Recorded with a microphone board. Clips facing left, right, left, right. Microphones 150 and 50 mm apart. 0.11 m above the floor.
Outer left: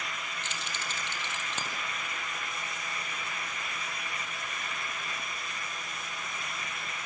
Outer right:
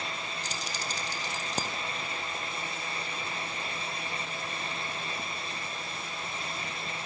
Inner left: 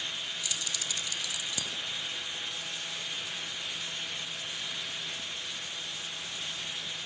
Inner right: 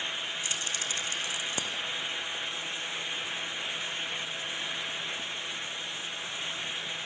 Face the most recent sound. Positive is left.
turn(degrees=-40)  # may be behind; listen again after turning